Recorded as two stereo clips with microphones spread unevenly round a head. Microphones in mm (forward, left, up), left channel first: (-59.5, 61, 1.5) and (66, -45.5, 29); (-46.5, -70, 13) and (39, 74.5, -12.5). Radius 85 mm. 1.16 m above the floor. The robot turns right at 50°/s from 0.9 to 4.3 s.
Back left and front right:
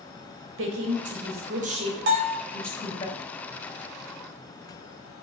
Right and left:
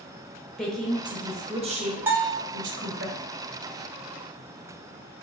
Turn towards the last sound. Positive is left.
turn(degrees=90)